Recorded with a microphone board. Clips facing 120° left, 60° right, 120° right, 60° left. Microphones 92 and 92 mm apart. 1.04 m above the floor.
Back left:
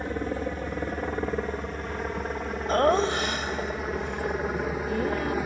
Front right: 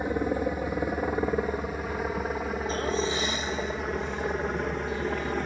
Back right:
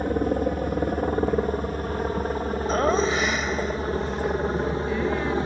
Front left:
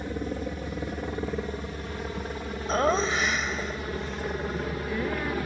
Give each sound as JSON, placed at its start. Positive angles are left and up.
{"t": 0.0, "sound": "a helicopter", "azimuth_deg": -135}
{"t": 2.7, "sound": "laughter", "azimuth_deg": 150}